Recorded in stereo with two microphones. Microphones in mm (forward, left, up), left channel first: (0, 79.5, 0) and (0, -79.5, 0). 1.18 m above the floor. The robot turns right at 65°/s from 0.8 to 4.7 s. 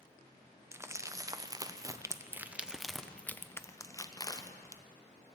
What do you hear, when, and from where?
0.7 s crumpling: 15° right (ahead or behind), 0.5 m; by 4.8 s 20° left (ahead or behind), 0.5 m